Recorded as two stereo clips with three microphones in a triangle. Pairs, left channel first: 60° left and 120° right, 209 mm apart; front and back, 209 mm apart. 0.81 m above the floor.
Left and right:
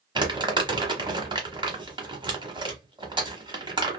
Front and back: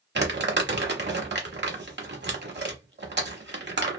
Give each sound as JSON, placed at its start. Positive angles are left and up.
{"t": 0.1, "sound": "crumpling", "azimuth_deg": 180, "distance_m": 1.0}